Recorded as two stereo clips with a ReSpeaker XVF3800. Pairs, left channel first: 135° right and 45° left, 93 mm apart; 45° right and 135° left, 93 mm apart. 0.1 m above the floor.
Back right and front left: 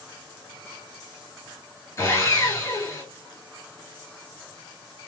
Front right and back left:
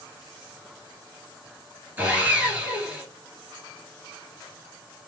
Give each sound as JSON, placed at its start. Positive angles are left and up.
{"t": 2.0, "sound": "sawing", "azimuth_deg": -165, "distance_m": 1.8}